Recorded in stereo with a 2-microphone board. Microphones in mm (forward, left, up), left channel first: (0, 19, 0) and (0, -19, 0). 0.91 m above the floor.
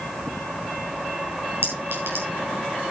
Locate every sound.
1.6 s a clink: 75° right (ahead or behind), 6.5 m